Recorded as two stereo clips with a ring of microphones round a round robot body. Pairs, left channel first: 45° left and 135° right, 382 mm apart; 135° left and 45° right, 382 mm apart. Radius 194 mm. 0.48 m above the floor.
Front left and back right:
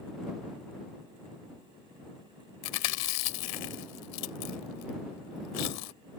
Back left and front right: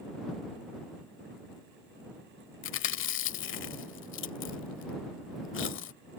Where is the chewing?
75° left.